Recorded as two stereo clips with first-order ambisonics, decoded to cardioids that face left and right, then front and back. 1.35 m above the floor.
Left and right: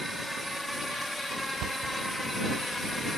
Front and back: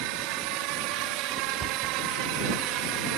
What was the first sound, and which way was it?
A drone, straight behind.